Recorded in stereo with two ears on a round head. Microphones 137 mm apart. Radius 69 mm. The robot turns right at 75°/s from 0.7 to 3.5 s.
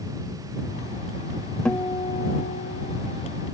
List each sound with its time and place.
1.6 s a guitar: 5° left; by 3.0 s 105° left